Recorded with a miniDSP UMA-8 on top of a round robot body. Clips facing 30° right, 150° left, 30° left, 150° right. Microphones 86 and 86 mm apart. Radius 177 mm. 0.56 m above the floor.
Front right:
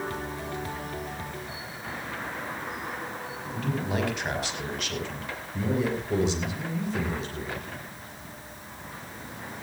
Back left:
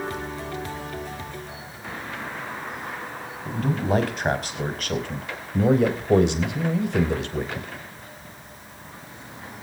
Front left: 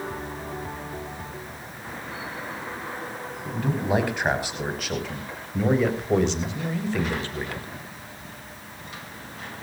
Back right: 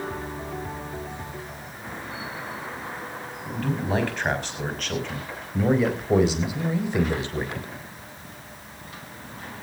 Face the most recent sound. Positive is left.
turn(degrees=145)